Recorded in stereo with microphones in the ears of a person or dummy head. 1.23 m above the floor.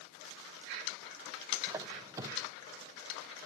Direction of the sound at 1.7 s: 20° right (ahead or behind).